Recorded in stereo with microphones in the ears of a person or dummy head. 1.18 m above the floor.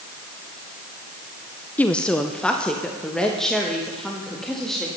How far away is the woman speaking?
About 0.6 m.